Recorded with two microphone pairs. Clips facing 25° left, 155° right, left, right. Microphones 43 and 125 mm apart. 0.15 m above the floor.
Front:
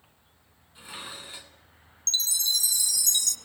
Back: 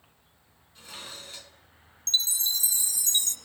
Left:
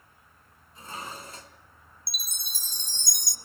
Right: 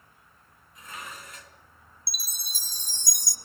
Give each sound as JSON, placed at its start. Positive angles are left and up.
{"t": 0.8, "sound": "dishes clattering", "azimuth_deg": 80, "distance_m": 1.0}
{"t": 2.1, "sound": "a chime", "azimuth_deg": 155, "distance_m": 0.6}